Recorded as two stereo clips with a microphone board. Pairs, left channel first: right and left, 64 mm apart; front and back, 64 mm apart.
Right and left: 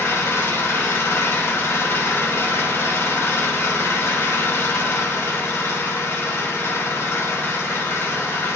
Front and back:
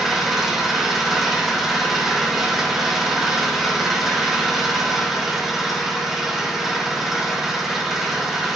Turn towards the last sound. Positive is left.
turn(degrees=-100)